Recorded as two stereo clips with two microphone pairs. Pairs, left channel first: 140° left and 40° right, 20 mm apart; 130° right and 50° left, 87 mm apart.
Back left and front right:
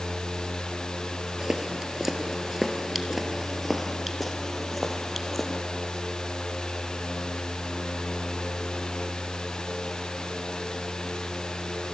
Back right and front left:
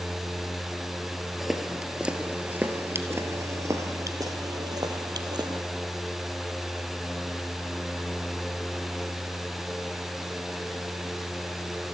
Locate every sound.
1.4 s footsteps: 40° right, 1.7 m; by 5.6 s 55° left, 2.5 m